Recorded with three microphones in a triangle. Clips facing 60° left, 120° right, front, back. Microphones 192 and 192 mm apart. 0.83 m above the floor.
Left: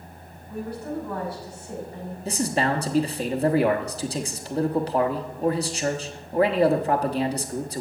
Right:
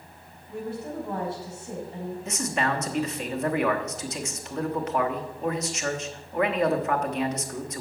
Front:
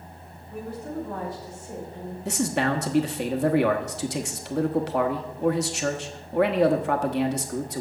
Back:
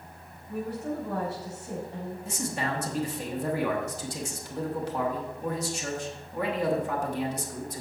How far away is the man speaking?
About 1.1 m.